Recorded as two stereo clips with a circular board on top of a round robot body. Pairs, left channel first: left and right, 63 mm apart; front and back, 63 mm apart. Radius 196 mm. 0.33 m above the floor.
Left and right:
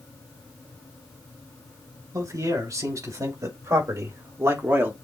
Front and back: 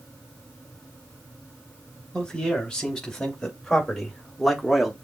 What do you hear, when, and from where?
2.1 s a man speaking: 80° right, 3.5 m; by 4.9 s 95° right, 1.5 m